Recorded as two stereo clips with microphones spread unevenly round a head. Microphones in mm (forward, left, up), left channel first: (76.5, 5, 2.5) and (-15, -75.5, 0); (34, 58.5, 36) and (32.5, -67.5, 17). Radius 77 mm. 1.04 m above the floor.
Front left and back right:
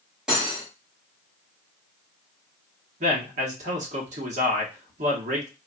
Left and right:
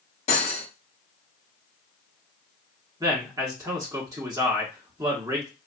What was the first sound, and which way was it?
Cutlery clinking, 135° left.